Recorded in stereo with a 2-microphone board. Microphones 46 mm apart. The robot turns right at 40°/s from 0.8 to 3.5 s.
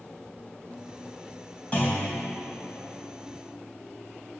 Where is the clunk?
25° left (ahead or behind), 3.5 m; by 2.1 s 10° left (ahead or behind), 3.5 m.